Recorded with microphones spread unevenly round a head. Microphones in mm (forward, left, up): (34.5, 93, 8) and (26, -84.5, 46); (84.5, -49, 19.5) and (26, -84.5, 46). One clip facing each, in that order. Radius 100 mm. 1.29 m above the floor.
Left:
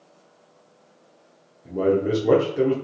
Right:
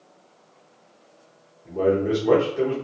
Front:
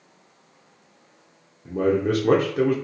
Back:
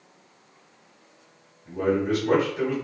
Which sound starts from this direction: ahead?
A man speaking, at 1.6 s.